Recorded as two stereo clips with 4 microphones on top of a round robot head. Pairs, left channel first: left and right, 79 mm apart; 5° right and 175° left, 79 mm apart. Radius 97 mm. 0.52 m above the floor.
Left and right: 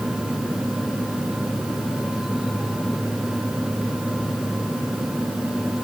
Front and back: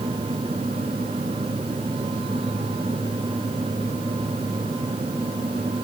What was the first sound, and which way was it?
Only background noise.